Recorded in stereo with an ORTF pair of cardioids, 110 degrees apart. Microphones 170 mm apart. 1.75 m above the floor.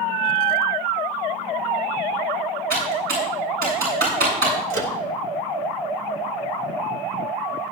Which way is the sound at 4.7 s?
50° right.